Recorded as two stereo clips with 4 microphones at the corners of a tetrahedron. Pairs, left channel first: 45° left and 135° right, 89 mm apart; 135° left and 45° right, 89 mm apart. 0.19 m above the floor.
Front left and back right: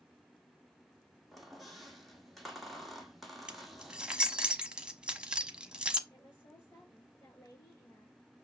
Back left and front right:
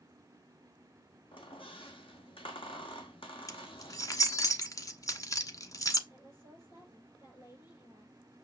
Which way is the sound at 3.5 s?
150° left.